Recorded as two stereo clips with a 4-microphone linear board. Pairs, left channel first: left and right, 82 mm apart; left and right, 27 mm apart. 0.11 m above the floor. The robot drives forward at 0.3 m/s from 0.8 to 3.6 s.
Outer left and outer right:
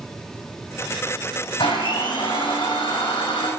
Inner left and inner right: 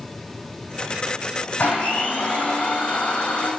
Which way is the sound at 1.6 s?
75° left (ahead or behind).